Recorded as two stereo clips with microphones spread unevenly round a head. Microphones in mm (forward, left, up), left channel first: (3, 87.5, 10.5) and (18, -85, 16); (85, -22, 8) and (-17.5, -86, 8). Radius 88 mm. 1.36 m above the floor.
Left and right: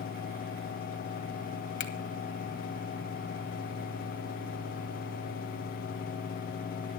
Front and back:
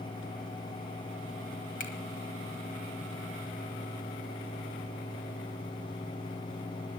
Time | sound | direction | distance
1.8 | a finger snap | 75° left | 1.4 m